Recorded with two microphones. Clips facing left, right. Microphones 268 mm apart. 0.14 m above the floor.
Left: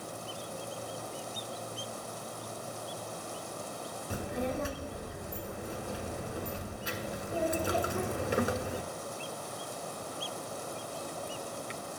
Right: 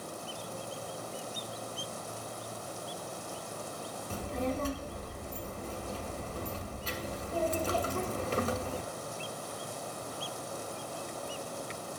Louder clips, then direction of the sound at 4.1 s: Even; 15° left (ahead or behind).